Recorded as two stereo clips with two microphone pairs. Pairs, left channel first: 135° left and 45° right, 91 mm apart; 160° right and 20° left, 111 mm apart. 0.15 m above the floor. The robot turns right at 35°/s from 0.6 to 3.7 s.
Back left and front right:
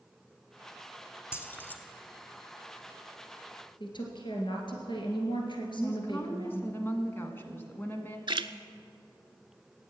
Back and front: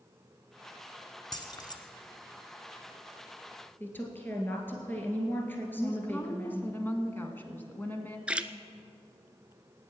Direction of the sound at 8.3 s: 60° right.